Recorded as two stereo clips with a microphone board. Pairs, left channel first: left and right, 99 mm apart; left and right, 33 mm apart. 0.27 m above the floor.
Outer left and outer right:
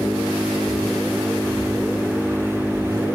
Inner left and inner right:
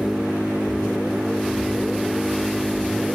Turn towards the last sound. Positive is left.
turn(degrees=-25)  # may be behind; listen again after turning